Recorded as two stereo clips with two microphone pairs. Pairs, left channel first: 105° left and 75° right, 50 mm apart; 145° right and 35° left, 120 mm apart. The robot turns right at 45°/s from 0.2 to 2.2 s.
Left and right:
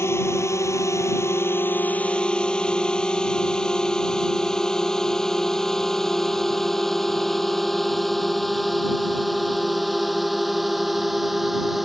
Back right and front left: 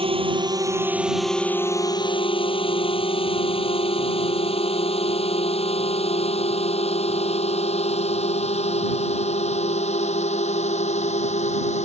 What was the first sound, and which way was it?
A drone, 80° left.